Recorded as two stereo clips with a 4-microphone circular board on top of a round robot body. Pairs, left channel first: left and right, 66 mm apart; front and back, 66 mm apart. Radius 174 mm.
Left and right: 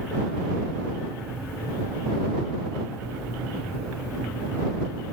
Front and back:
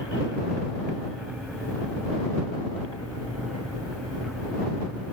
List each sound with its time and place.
Only background noise.